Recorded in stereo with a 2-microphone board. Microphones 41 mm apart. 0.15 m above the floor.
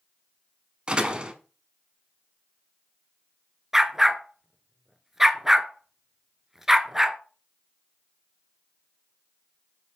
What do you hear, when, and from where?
0.9 s a door slam: 25° right (ahead or behind), 0.7 m
3.7 s a dog barking: 10° right (ahead or behind), 0.5 m